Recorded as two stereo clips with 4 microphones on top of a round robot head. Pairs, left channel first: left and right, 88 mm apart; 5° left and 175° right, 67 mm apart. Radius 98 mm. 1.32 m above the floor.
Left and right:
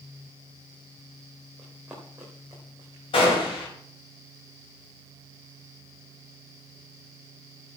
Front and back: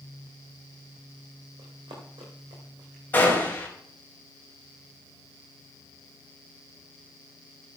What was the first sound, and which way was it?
Running footsteps, 175° right.